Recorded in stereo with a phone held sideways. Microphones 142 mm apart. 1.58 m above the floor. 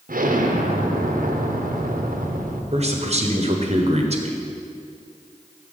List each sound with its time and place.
0.1 s an explosion: 75° right (ahead or behind), 0.8 m
2.7 s a man speaking: 50° right (ahead or behind), 1.0 m